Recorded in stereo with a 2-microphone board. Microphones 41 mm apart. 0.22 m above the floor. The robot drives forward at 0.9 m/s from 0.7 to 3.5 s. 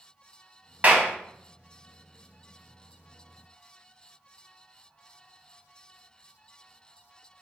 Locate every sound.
0.8 s a clap: 35° right (ahead or behind), 1.1 m